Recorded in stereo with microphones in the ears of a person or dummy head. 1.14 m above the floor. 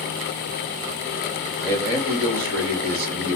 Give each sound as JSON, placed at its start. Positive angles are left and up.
{"t": 1.6, "sound": "a man speaking", "side_deg": -40, "distance_m": 0.9}